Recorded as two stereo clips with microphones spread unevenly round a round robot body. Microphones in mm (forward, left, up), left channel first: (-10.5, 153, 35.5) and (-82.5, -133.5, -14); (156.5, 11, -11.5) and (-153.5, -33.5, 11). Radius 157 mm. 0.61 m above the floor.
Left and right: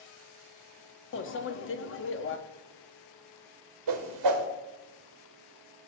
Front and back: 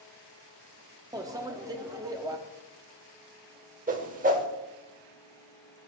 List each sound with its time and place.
1.1 s a microwave: 110° left, 0.9 m
3.9 s a whoosh: 105° right, 1.4 m